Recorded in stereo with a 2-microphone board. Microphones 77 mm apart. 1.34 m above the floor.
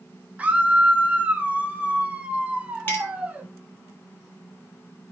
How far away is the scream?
About 2 m.